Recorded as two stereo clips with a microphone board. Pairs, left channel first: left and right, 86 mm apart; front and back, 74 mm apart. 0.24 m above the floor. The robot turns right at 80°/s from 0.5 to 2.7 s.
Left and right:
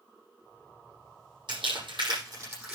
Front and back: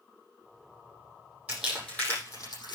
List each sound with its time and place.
1.5 s crumpling: 110° right, 6.5 m; by 2.8 s 10° right, 6.5 m